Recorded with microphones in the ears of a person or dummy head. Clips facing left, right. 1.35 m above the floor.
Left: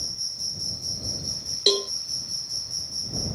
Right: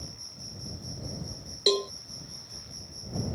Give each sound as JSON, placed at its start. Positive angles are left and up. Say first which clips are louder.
{"t": 0.0, "sound": "an insect", "louder": "even", "side_deg": 75}
{"t": 1.7, "sound": "a cowbell", "louder": "left 1 dB", "side_deg": 5}